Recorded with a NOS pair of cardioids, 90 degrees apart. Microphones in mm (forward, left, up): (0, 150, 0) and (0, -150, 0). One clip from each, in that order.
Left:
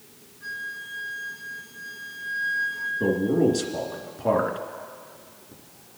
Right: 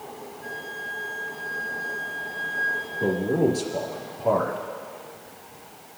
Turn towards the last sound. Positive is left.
turn(degrees=45)